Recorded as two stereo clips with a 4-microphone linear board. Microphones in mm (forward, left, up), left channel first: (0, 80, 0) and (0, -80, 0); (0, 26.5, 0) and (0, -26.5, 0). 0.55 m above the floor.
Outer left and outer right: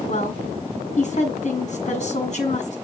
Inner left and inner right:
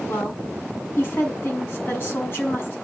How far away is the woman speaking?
About 5.5 m.